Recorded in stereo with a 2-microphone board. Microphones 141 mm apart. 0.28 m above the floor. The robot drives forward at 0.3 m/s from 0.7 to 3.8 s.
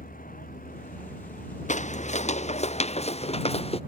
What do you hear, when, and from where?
0.0 s a vehicle: 80° left; by 3.9 s 75° left (ahead or behind)
1.7 s footsteps: 60° left (ahead or behind); by 3.8 s 45° left (ahead or behind)